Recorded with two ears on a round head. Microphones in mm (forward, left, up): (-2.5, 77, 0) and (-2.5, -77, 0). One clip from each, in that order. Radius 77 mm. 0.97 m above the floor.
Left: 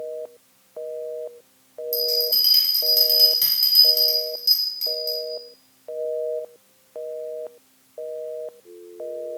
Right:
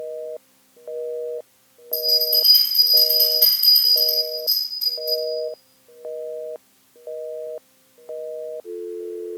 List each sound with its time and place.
1.9 s a bell: 25° left (ahead or behind), 0.9 m